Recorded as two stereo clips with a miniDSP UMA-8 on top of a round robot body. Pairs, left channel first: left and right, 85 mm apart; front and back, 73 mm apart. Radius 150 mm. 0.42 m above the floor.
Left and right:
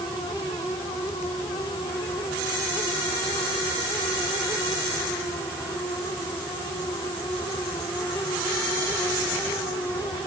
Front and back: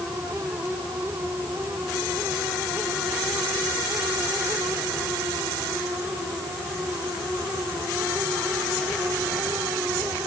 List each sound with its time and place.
Only background noise.